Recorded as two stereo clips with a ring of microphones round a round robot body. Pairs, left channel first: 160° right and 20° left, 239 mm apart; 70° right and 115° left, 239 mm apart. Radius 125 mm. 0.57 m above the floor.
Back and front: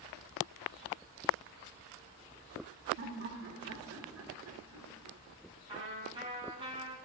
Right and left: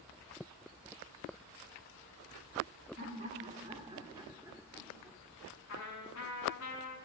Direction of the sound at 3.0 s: 70° left.